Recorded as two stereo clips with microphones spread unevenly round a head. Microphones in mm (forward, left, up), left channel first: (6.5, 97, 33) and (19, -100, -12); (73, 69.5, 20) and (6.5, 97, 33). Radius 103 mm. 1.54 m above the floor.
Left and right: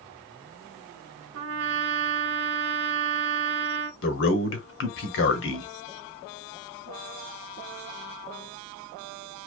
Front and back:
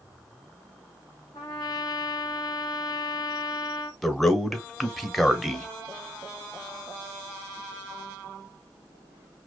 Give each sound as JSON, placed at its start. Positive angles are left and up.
{"t": 1.3, "sound": "a trumpet", "azimuth_deg": -90, "distance_m": 0.6}
{"t": 4.0, "sound": "a man speaking", "azimuth_deg": 65, "distance_m": 0.9}